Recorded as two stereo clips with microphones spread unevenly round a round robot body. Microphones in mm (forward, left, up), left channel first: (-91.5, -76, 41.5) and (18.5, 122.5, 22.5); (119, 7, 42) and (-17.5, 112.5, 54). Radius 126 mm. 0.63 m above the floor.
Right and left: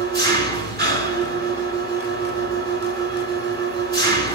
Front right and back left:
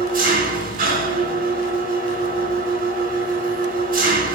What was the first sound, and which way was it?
An engine running, 110° left.